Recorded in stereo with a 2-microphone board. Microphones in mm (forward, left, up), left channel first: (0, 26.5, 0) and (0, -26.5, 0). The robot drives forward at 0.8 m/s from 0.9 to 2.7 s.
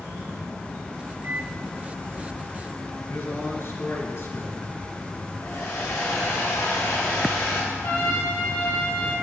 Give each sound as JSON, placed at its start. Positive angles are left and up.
{"t": 1.2, "sound": "a microwave", "side_deg": -35, "distance_m": 0.6}
{"t": 3.1, "sound": "a man speaking", "side_deg": 60, "distance_m": 2.5}
{"t": 5.4, "sound": "a hair dryer", "side_deg": 70, "distance_m": 2.5}
{"t": 7.7, "sound": "a trumpet", "side_deg": 90, "distance_m": 5.0}